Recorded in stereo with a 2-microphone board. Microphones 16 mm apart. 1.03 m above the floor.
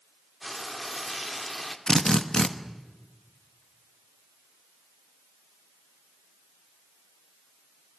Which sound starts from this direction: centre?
Frying, at 0.4 s.